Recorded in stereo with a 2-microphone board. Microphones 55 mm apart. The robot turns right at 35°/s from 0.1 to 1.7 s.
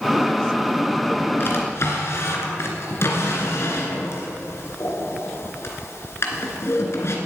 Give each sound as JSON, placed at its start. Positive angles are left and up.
{"t": 1.4, "sound": "a drawer", "side_deg": 45, "distance_m": 2.5}